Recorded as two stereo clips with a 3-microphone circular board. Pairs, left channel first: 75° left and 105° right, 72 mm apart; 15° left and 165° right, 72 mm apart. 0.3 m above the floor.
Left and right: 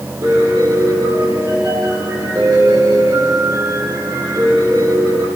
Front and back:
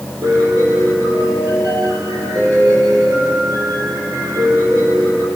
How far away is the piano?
About 8 m.